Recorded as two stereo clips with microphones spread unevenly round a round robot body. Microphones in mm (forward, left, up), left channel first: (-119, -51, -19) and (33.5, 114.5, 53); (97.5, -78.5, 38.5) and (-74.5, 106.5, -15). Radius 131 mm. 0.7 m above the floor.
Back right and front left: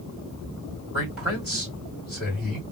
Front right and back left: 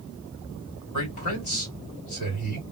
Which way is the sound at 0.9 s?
50° right.